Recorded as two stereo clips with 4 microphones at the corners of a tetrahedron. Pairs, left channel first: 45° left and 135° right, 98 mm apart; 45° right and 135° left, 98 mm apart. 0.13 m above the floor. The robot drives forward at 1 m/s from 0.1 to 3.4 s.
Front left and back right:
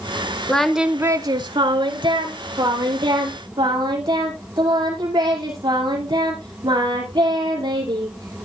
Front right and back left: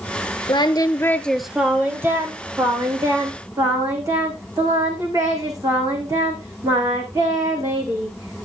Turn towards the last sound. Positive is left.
turn(degrees=-170)